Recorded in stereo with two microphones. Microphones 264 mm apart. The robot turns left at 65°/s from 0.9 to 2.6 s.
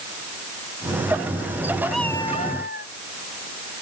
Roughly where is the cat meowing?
Behind.